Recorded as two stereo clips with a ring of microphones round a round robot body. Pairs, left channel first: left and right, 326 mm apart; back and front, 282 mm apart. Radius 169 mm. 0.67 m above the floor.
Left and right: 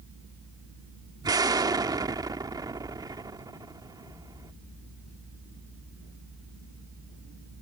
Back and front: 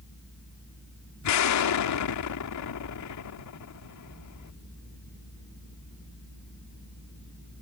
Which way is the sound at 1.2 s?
170° right.